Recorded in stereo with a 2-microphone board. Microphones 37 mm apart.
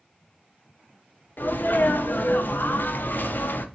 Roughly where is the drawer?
No drawer in this recording.